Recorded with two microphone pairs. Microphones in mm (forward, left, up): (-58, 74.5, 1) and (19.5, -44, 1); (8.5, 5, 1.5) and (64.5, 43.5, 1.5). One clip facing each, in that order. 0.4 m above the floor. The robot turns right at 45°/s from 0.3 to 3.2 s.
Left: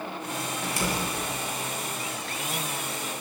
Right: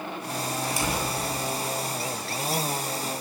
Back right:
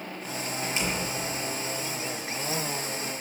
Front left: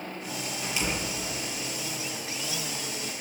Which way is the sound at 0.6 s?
150° left.